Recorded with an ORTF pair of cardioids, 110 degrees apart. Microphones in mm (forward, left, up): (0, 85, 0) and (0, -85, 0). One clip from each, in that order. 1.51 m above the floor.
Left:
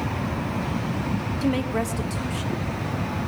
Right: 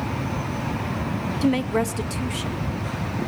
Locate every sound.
1.4 s a woman speaking: 15° right, 0.6 m; by 2.7 s 35° right, 1.3 m